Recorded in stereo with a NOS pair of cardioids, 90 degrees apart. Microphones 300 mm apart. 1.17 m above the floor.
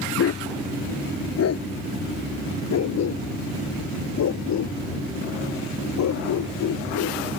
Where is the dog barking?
50° left; by 7.2 s 70° left.